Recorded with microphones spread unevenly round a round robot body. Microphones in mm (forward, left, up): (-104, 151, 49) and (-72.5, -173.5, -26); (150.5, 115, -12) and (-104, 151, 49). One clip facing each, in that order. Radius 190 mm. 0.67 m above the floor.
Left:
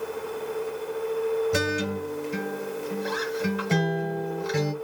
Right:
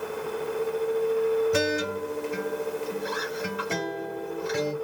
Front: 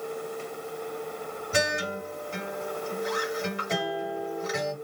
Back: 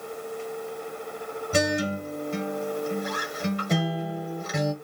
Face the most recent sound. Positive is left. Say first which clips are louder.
# right 1 dB, back 5 dB
turn(degrees=130)